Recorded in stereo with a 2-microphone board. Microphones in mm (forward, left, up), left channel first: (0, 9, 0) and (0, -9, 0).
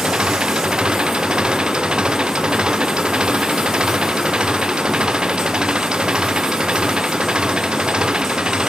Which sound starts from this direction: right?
An engine running, at 0.0 s.